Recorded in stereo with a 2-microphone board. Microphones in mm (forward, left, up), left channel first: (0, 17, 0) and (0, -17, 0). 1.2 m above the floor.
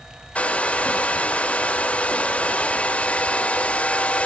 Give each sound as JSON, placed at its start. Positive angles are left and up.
{"t": 0.3, "sound": "a hair dryer", "side_deg": 40, "distance_m": 0.9}